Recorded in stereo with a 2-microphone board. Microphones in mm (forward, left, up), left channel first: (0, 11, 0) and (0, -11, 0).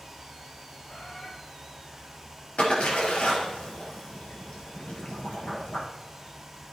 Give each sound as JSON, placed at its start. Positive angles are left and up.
{"t": 0.9, "sound": "a bird", "side_deg": 80, "distance_m": 4.5}
{"t": 2.6, "sound": "a splash", "side_deg": 75, "distance_m": 4.5}